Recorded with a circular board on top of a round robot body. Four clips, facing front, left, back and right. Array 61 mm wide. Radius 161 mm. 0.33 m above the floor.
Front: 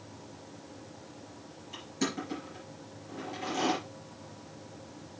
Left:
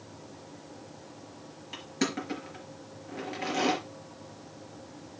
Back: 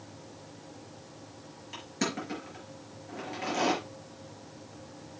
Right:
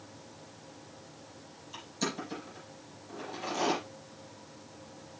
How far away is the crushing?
About 4.5 m.